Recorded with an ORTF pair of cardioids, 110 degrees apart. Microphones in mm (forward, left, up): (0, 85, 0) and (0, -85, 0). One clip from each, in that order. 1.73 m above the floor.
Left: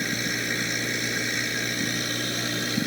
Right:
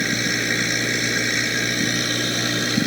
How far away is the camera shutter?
I don't hear a camera shutter.